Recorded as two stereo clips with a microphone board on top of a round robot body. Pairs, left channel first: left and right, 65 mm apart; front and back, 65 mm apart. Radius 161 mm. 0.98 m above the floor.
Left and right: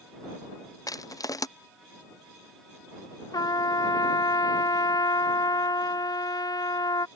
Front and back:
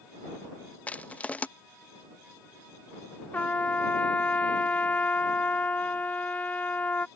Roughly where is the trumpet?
Left.